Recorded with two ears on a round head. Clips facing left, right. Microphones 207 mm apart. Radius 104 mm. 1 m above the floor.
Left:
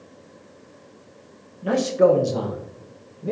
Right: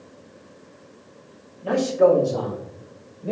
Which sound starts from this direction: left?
A man speaking, at 1.6 s.